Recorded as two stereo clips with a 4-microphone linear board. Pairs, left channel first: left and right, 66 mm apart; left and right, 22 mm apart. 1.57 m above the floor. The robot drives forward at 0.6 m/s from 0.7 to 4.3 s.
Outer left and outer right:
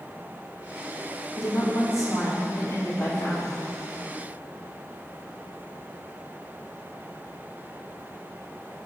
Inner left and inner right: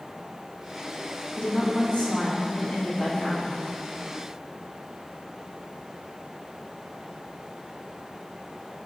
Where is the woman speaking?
60° left (ahead or behind), 1.9 m; by 3.6 s 35° left (ahead or behind), 3 m.